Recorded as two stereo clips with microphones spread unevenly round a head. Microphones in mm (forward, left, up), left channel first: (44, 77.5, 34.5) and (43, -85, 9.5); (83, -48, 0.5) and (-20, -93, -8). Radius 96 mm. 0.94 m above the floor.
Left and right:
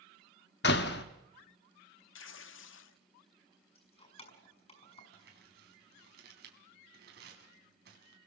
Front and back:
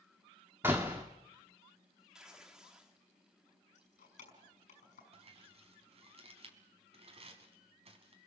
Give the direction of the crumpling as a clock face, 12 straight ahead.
4 o'clock.